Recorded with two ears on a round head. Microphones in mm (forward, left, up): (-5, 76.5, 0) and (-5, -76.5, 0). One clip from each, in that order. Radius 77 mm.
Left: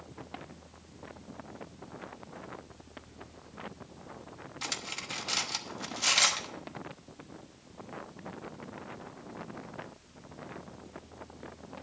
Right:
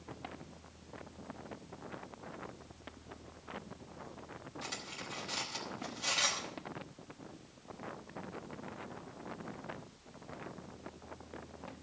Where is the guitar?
No guitar in this recording.